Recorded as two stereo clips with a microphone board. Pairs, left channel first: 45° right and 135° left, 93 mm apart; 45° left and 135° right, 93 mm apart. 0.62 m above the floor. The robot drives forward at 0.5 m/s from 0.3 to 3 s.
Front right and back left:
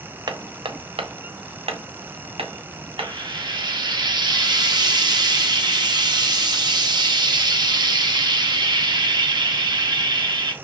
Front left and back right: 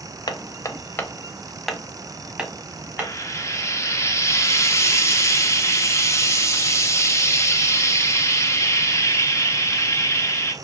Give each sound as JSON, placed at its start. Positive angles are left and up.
{"t": 0.3, "sound": "hammering", "azimuth_deg": 90, "distance_m": 0.7}
{"t": 3.0, "sound": "frying", "azimuth_deg": 100, "distance_m": 0.8}